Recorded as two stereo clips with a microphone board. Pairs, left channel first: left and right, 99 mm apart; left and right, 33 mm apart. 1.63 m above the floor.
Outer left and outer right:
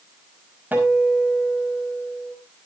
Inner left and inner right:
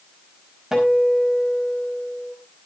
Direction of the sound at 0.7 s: 20° right (ahead or behind).